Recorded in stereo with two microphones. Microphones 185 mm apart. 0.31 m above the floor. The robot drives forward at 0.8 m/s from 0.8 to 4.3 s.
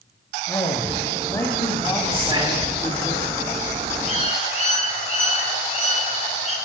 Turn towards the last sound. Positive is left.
turn(degrees=40)  # may be behind; listen again after turning